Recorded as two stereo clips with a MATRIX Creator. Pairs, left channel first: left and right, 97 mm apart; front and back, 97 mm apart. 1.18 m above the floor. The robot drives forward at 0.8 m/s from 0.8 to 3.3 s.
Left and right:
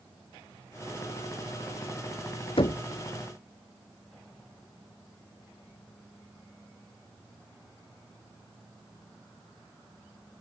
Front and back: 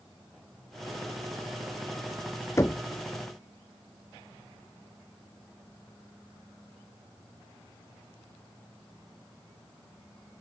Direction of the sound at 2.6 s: 60° left.